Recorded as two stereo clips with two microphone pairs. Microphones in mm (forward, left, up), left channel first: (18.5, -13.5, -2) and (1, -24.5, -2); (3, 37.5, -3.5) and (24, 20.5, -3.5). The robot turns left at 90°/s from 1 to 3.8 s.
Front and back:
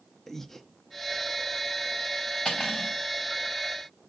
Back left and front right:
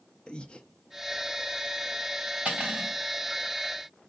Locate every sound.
0.3 s breathing: 105° left, 0.7 m
2.5 s cutlery clinking: 10° right, 3.5 m; by 2.9 s 50° right, 3.5 m